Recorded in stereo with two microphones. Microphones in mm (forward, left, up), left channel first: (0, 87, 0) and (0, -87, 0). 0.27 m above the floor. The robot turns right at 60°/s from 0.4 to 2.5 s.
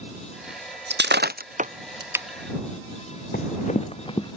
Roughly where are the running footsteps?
Left.